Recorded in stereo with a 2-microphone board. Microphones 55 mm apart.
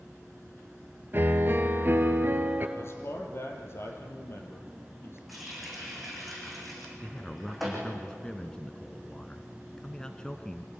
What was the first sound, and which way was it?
A piano, 40° right (ahead or behind).